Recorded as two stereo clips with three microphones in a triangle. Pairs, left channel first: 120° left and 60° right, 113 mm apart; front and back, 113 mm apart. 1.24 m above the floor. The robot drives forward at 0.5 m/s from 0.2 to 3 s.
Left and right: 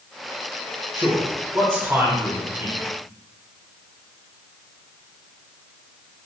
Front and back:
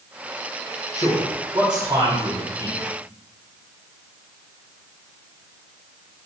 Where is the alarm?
I don't hear an alarm.